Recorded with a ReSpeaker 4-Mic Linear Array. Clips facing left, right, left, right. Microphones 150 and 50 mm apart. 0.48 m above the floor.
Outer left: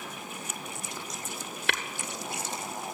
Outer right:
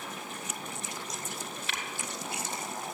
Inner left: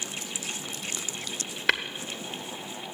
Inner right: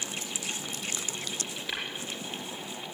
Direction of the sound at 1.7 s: 80° left.